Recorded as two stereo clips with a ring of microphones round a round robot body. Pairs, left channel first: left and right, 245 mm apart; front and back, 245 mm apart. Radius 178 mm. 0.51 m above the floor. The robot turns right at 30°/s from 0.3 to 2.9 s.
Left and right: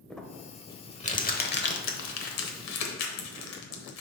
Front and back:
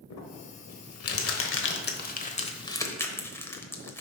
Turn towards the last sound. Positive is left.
turn(degrees=80)